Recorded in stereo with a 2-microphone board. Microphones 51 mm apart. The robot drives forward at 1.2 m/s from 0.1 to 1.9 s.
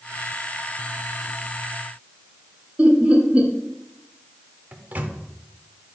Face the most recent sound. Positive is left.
turn(degrees=-30)  # may be behind; listen again after turning